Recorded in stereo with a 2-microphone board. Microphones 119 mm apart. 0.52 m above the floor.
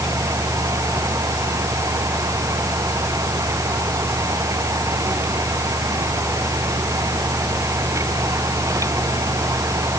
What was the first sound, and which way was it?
Only background noise.